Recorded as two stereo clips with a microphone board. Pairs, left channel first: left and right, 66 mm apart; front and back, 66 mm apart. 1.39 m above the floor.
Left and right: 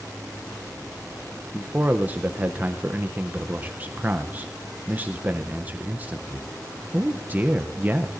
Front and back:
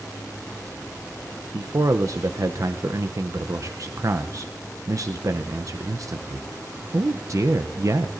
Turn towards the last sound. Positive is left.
turn(degrees=-150)